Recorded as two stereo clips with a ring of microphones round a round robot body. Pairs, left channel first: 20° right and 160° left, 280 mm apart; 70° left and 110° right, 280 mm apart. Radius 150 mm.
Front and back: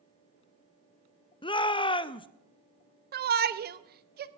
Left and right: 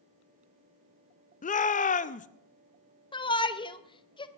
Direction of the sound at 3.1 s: 130° left.